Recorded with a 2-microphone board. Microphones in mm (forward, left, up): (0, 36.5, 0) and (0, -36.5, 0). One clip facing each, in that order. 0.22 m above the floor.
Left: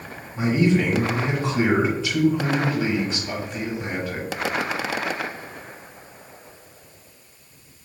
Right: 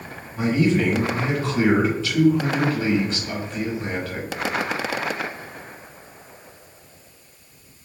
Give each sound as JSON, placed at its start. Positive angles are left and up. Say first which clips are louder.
{"t": 0.4, "sound": "a man speaking", "louder": "even", "side_deg": 20, "distance_m": 1.2}